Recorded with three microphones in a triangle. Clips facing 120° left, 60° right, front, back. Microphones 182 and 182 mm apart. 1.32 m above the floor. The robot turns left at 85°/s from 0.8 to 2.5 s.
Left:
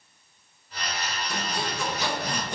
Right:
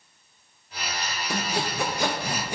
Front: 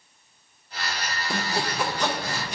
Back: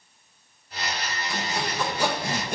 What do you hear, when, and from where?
1.3 s sawing: 35° right, 0.9 m; by 2.6 s 140° right, 0.9 m